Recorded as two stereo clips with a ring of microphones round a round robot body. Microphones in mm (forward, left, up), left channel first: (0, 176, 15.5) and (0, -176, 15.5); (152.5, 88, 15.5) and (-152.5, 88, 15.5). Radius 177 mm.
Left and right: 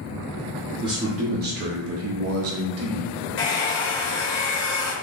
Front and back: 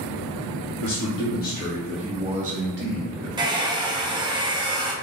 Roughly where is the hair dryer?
Behind left.